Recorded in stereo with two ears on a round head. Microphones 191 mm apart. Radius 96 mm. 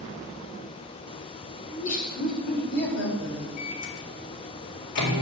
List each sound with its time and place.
1.7 s laughter: 35° left (ahead or behind), 3 m; by 3.5 s 65° left (ahead or behind), 5 m
3.6 s a microwave: 85° left, 3.5 m